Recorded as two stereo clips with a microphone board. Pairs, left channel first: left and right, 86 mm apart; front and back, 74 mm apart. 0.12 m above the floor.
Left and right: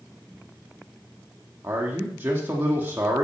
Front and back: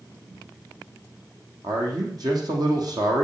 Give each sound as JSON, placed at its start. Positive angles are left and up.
{"t": 1.6, "sound": "a man speaking", "azimuth_deg": -155, "distance_m": 4.0}